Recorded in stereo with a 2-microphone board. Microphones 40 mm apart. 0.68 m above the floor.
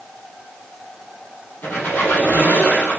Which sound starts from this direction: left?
A squeak, at 1.6 s.